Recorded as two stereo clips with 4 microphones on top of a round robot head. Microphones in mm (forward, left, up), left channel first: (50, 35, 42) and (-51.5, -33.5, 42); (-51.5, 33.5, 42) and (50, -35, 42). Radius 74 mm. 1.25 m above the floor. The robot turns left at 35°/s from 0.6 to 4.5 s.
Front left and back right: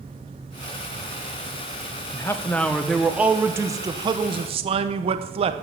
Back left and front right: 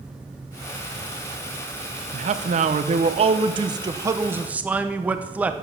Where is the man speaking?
30° right, 1.0 m; by 5.5 s 110° right, 1.0 m.